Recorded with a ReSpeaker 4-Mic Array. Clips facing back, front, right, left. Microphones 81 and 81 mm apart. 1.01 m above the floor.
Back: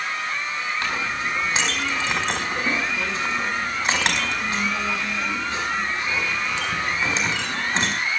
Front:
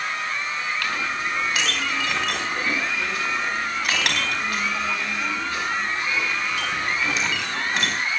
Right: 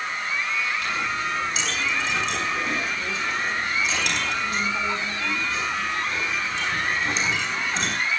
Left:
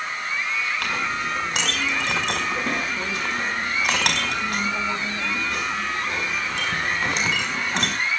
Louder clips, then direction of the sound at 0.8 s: Even, left 1 dB; 115° left.